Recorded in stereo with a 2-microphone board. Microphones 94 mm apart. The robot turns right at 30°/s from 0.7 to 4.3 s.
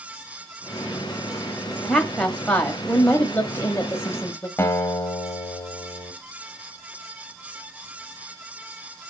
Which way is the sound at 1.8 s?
5° left (ahead or behind).